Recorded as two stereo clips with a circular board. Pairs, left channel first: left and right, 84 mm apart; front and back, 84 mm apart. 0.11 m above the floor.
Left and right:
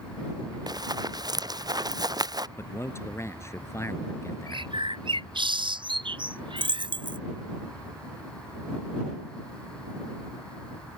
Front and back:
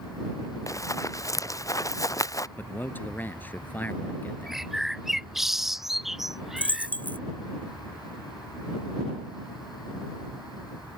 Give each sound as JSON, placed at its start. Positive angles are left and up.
{"t": 0.7, "sound": "running footsteps", "azimuth_deg": -50}
{"t": 2.6, "sound": "a man speaking", "azimuth_deg": 55}
{"t": 4.5, "sound": "a bird", "azimuth_deg": -95}
{"t": 6.6, "sound": "a dropped coin", "azimuth_deg": -70}